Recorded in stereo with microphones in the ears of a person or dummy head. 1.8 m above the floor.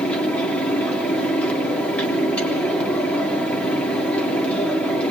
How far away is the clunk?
I don't hear a clunk.